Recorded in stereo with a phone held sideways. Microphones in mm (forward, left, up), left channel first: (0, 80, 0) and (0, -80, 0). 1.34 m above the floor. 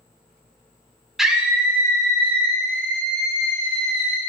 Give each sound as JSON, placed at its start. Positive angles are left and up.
{"t": 1.2, "sound": "a scream", "side_deg": -5, "distance_m": 1.2}